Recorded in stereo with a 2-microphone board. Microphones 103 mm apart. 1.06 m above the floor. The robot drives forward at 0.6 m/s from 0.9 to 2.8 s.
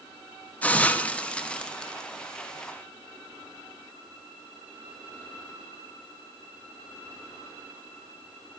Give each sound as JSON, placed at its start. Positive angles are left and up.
{"t": 0.6, "sound": "a hiss", "side_deg": 15, "distance_m": 0.9}